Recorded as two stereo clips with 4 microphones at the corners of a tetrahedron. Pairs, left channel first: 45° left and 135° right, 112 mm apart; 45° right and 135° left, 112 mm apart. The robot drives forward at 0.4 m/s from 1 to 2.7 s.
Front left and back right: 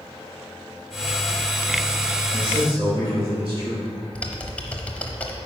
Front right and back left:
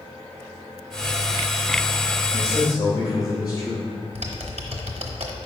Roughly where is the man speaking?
Right.